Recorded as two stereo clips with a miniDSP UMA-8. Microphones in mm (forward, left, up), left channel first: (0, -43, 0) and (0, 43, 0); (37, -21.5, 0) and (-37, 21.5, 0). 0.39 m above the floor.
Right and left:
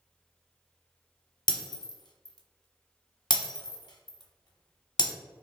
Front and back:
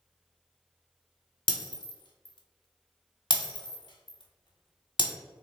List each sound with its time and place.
1.5 s breaking glass: 55° right, 0.7 m